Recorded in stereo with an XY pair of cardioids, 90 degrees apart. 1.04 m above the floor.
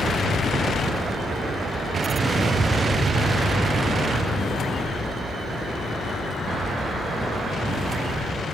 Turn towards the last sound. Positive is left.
turn(degrees=-20)